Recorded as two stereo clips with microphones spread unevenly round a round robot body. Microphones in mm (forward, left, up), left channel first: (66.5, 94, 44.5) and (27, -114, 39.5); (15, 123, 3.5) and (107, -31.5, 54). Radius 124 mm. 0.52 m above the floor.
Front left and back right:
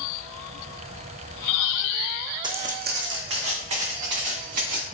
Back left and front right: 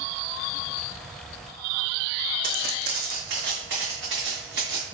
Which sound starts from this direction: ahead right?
Footsteps, at 2.4 s.